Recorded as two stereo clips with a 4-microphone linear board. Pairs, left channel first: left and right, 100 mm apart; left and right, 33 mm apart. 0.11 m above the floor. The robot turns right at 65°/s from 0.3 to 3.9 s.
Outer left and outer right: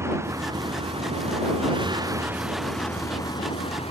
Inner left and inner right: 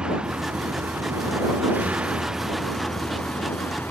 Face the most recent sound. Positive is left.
turn(degrees=80)